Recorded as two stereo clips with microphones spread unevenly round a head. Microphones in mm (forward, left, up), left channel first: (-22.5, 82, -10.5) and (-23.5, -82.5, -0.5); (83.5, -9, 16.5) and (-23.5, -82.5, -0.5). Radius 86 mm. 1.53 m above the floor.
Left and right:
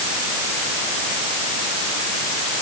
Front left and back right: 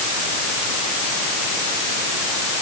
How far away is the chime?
I don't hear a chime.